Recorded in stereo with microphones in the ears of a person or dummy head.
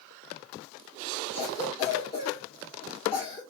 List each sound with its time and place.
1.3 s a cough: 40° left (ahead or behind), 1.5 m